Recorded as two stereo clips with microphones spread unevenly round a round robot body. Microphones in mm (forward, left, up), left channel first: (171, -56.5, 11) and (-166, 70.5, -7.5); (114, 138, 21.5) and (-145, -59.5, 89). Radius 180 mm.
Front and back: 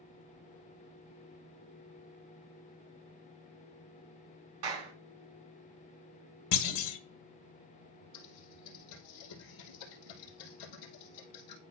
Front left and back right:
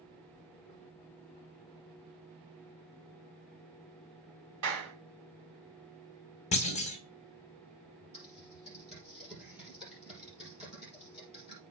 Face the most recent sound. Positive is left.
turn(degrees=-55)